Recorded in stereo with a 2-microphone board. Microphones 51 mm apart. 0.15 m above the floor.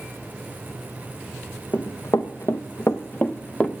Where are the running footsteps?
85° left, 0.9 m; by 3.7 s 20° left (ahead or behind), 0.8 m.